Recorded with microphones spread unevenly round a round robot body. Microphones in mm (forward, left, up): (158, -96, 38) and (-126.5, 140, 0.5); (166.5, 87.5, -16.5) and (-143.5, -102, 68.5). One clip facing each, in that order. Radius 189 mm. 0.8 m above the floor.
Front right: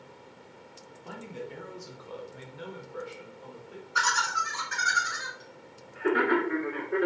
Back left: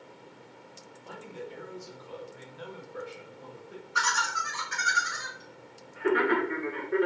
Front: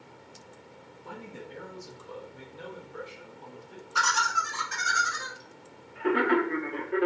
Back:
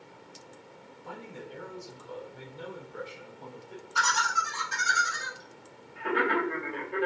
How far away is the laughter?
About 1.2 m.